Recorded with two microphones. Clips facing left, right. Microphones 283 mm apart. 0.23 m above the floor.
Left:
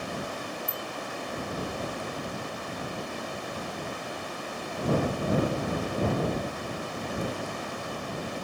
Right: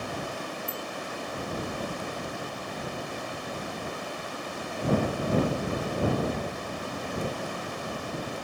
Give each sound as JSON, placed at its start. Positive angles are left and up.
{"t": 0.7, "sound": "a bicycle bell", "side_deg": -30}